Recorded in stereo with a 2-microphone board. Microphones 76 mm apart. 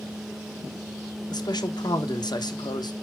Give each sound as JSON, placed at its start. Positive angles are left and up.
{"t": 1.3, "sound": "a man speaking", "side_deg": 60, "distance_m": 1.1}